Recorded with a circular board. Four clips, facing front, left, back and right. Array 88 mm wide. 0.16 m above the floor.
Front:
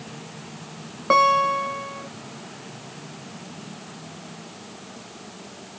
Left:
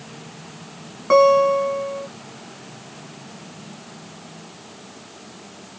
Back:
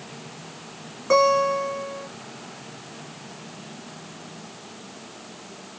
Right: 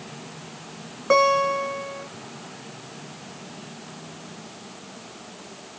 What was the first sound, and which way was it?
A guitar, 5° left.